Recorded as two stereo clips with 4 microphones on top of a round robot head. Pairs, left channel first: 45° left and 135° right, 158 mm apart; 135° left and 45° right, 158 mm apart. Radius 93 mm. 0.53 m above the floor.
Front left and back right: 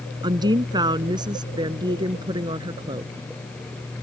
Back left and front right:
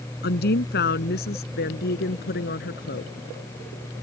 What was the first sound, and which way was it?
A woman speaking, 160° left.